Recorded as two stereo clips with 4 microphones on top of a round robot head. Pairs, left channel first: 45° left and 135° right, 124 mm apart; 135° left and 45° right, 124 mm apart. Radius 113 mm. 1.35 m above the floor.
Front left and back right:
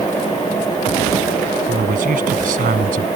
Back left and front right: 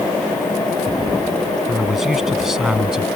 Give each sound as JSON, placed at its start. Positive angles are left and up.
{"t": 1.7, "sound": "a man speaking", "azimuth_deg": -135}